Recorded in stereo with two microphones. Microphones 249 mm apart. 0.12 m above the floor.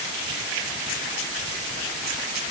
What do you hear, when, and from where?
Only background noise.